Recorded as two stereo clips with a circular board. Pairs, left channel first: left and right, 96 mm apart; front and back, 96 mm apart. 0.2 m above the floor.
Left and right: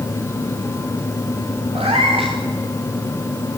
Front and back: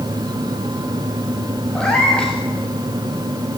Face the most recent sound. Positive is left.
turn(degrees=-80)